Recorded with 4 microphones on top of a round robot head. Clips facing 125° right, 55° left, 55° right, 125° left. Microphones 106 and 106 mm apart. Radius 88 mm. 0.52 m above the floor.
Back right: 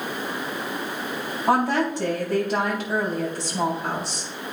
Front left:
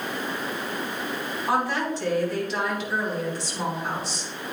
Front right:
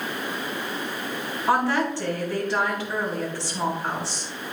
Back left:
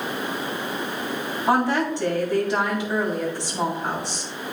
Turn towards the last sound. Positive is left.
turn(degrees=-165)